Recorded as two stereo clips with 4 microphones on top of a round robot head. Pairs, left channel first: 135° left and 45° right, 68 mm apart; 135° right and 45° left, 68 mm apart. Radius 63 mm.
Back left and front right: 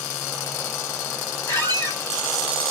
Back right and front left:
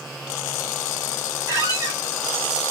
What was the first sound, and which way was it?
A squeak, 85° left.